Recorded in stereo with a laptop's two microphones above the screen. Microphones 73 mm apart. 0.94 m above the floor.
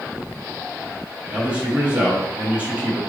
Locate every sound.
1.3 s a man speaking: 20° right (ahead or behind), 2 m